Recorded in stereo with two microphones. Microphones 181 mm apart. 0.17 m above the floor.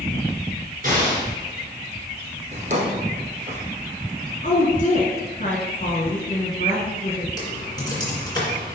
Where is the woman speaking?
45° left (ahead or behind), 1.9 m.